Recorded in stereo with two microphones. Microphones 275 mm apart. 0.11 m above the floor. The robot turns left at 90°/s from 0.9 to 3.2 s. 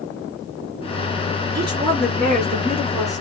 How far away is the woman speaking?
About 1.9 m.